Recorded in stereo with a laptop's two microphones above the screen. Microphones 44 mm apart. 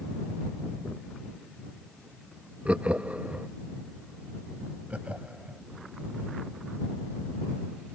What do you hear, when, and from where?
2.6 s laughter: 30° right (ahead or behind)
4.9 s laughter: 30° right (ahead or behind)